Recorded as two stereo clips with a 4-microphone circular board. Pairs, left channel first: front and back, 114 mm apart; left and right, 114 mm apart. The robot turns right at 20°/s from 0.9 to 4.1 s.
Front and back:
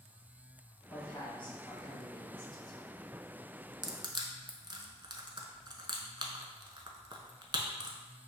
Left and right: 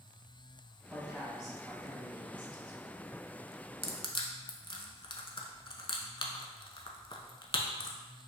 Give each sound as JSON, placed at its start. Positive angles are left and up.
{"t": 0.9, "sound": "a man speaking", "azimuth_deg": -15, "distance_m": 1.8}
{"t": 3.8, "sound": "crushing", "azimuth_deg": 125, "distance_m": 0.6}